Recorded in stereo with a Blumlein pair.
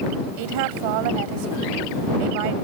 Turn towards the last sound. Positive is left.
turn(degrees=-45)